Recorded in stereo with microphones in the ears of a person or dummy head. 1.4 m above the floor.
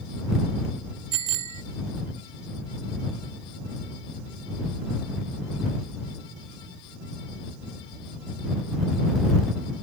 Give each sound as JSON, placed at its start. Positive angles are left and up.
{"t": 1.1, "sound": "a bicycle bell", "side_deg": -40}